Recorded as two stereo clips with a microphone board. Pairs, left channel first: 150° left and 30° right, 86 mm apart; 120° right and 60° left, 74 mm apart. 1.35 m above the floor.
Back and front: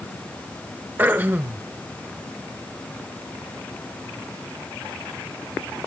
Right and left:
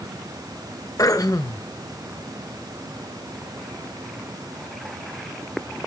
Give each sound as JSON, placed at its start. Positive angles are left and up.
{"t": 1.0, "sound": "throat clearing", "azimuth_deg": -95, "distance_m": 0.8}